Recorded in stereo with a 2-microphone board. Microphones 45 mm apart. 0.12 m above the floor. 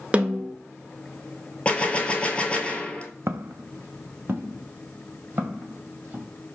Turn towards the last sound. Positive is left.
turn(degrees=-35)  # may be behind; listen again after turning